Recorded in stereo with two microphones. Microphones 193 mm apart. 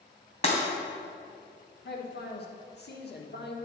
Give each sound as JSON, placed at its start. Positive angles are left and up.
{"t": 0.4, "sound": "breaking glass", "side_deg": 35, "distance_m": 2.0}
{"t": 1.9, "sound": "a man speaking", "side_deg": 60, "distance_m": 1.2}